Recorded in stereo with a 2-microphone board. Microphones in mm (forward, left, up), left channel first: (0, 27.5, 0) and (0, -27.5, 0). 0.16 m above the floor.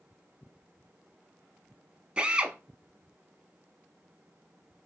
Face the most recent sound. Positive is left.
turn(degrees=-20)  # may be behind; listen again after turning